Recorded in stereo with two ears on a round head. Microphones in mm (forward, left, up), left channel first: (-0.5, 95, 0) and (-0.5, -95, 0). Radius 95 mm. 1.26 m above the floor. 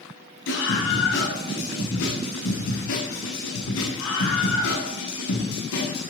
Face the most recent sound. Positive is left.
turn(degrees=85)